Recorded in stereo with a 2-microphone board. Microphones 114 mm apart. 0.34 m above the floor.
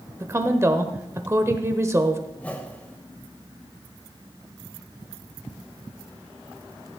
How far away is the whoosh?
About 1.4 m.